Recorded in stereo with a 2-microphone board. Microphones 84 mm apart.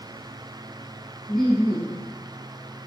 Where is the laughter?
Centre (ahead or behind), 1.9 m.